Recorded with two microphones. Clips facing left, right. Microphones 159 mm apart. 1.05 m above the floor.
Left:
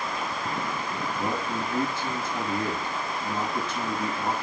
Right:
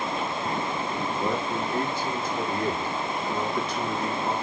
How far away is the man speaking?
About 6.5 m.